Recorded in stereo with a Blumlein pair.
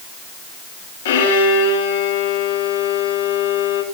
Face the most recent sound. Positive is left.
turn(degrees=60)